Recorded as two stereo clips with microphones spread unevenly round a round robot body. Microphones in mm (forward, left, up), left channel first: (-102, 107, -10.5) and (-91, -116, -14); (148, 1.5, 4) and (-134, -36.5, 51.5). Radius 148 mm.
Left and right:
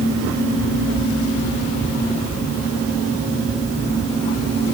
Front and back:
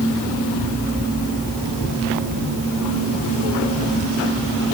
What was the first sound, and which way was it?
Only background noise.